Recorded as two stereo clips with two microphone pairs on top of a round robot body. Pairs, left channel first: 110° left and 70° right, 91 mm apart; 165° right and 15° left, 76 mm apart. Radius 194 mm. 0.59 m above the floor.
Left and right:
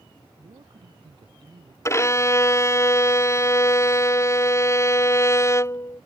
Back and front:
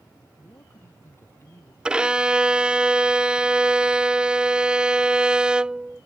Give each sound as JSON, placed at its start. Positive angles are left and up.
{"t": 0.4, "sound": "a man speaking", "azimuth_deg": -105}
{"t": 1.9, "sound": "a violin", "azimuth_deg": 85}